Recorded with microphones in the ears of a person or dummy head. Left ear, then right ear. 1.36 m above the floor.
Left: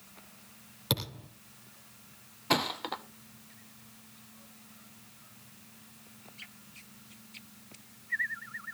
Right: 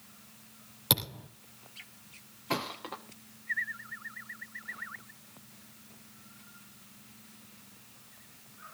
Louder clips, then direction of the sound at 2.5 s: Left 5 dB; 20° left (ahead or behind).